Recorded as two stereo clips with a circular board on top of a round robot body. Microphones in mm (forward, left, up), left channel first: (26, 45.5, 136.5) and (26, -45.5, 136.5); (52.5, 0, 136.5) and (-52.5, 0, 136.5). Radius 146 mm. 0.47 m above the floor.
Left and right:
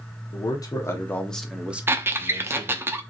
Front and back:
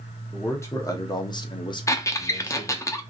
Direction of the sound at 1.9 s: 40° right.